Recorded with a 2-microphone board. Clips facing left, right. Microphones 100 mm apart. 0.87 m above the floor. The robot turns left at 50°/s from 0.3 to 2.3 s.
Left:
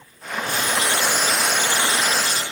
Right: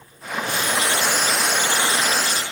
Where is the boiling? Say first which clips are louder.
Even; 45° left, 0.8 m; by 2.4 s 45° right, 0.8 m.